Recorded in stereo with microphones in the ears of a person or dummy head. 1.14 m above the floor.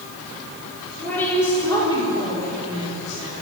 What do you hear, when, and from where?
1.0 s a woman speaking: 5° left (ahead or behind), 4 m; by 3.3 s 40° left (ahead or behind), 2.5 m